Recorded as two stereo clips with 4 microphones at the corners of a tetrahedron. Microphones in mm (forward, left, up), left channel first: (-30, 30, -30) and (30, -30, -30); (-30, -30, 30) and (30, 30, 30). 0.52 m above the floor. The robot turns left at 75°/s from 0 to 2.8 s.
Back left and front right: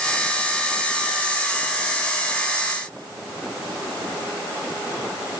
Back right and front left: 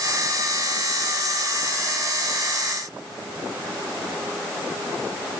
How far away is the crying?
No crying in this recording.